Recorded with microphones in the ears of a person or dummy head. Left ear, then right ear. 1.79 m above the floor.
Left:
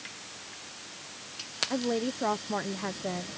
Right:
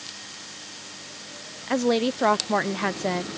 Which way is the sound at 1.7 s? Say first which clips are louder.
Right 12 dB; 70° right (ahead or behind).